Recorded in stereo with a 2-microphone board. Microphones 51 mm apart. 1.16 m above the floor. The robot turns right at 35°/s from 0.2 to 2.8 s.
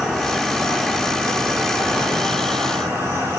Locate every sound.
0.0 s an insect: 175° left, 5 m; by 3.4 s 95° right, 5 m